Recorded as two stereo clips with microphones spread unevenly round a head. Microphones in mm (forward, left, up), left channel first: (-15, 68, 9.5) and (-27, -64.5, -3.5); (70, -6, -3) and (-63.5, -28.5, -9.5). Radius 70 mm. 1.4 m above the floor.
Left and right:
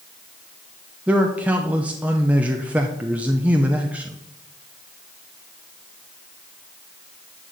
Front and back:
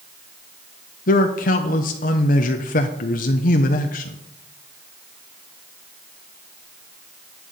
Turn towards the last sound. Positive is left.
turn(degrees=-15)